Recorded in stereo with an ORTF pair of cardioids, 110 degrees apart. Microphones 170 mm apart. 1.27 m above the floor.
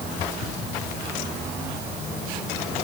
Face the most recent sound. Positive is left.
No sound to turn to.